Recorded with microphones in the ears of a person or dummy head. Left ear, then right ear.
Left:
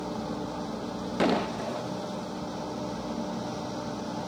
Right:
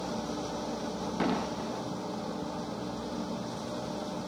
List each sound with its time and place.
1.2 s an explosion: 15° left (ahead or behind)